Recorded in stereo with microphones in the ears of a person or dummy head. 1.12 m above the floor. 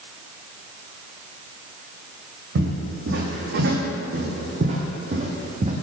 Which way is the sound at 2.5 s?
65° right (ahead or behind).